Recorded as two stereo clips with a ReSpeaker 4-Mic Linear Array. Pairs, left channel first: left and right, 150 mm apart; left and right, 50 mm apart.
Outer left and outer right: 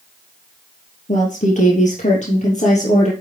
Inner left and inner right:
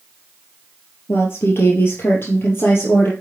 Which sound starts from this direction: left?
A woman speaking, at 1.1 s.